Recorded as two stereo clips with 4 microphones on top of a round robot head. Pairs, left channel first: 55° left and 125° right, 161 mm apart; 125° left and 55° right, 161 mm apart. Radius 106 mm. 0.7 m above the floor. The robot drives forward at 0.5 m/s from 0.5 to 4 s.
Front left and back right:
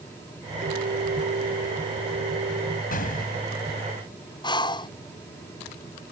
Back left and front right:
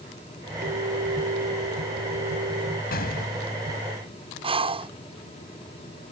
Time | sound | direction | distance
0.6 | a clink | 80° right | ?
2.9 | an explosion | 95° left | ?
4.4 | breathing | 5° right | ?